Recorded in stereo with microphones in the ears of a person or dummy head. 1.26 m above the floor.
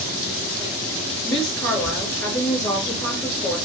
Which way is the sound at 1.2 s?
5° left (ahead or behind).